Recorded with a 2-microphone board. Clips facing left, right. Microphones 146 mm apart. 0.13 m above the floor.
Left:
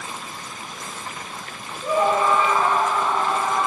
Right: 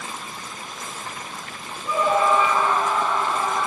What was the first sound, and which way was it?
A scream, 70° left (ahead or behind).